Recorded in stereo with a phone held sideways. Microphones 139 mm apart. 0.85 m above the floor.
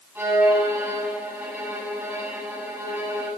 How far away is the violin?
About 7.5 m.